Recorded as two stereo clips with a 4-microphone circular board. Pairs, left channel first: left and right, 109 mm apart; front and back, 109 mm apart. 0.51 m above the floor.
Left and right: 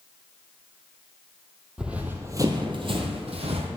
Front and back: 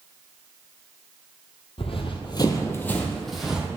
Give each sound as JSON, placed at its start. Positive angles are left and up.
{"t": 1.8, "sound": "running footsteps", "azimuth_deg": -10, "distance_m": 0.9}